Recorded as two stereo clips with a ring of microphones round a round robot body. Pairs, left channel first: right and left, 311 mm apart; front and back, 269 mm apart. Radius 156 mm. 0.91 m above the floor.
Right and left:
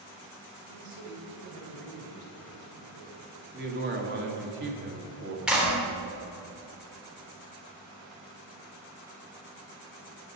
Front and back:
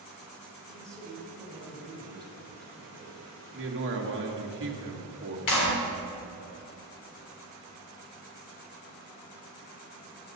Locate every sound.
0.7 s a man speaking: 85° left, 3 m
3.5 s a man speaking: 140° left, 1.7 m
5.5 s a clap: 5° left, 3 m